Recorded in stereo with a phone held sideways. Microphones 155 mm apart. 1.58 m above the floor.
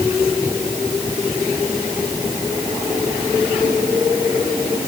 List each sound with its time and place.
Only background noise.